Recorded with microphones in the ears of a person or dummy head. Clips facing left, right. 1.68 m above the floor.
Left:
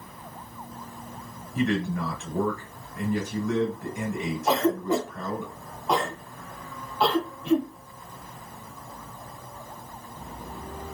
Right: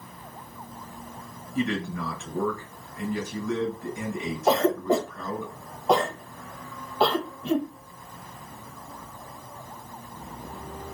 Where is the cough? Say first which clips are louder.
Right 2 dB; 30° right (ahead or behind), 0.6 m.